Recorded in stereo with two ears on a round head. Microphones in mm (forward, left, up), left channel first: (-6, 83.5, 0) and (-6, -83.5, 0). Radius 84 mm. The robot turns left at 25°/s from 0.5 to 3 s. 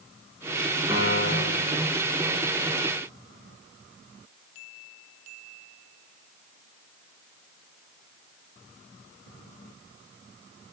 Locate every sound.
0.9 s a piano: 15° right (ahead or behind), 6.5 m; by 1.7 s 35° right (ahead or behind), 6.5 m